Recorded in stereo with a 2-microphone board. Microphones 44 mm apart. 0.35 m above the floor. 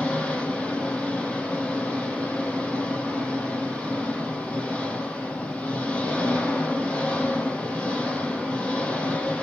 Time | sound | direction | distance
0.0 | an engine running | 35° left (ahead or behind) | 5.5 m